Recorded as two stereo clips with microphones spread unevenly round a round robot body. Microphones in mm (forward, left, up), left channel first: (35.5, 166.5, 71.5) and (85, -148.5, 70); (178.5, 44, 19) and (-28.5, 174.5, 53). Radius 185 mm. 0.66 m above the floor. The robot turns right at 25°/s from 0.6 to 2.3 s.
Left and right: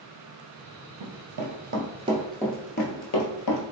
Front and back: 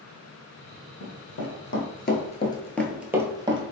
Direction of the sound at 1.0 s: 90° right.